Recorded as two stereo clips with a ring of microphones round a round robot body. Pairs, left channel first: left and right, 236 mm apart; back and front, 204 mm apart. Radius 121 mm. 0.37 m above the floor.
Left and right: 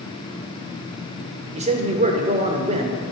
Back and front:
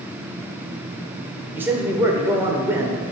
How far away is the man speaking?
About 0.9 m.